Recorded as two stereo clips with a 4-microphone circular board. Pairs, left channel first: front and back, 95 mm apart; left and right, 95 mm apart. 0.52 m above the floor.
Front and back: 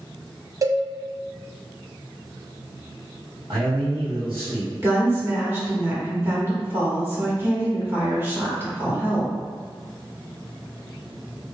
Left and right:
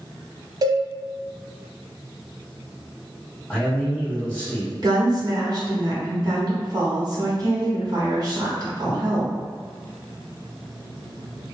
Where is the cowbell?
130° right, 0.5 m.